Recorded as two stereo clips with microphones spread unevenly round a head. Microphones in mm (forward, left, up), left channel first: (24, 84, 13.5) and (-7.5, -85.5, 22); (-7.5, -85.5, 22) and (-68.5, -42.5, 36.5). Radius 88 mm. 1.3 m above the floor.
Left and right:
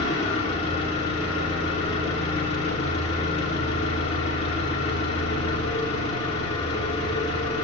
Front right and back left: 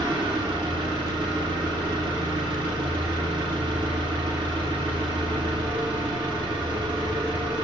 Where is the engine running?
140° left, 2.5 m.